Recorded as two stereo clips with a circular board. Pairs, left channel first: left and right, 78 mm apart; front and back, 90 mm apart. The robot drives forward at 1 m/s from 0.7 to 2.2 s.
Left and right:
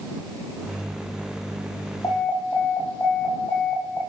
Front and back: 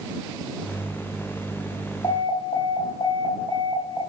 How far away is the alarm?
About 8 m.